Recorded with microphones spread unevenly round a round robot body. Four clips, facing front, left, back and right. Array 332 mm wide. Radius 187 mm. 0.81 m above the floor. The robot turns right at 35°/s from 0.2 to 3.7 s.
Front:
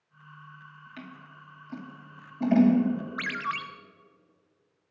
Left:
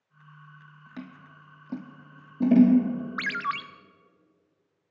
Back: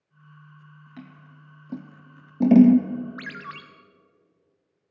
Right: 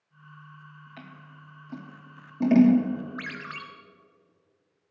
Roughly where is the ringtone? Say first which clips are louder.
Left 8 dB, front 5 dB; left.